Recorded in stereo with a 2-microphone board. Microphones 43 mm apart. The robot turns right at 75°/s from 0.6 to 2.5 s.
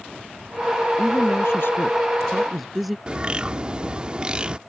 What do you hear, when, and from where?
1.0 s a woman speaking: 70° left; by 3.0 s 175° right
3.1 s a bird: 25° right (ahead or behind)